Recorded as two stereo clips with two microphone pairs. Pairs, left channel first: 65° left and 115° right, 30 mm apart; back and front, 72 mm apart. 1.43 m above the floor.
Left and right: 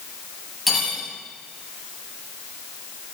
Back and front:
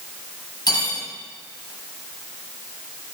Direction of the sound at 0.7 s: 150° left.